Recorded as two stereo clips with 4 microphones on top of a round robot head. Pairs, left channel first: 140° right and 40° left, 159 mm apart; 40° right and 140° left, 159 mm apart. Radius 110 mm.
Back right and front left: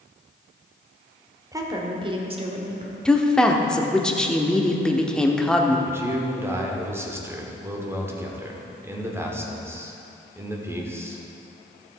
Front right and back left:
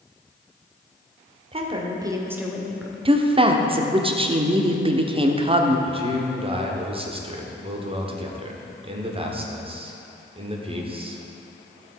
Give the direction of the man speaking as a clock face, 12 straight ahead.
8 o'clock.